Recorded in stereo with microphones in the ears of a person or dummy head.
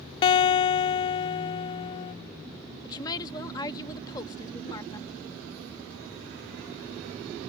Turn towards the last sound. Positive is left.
turn(degrees=25)  # may be behind; listen again after turning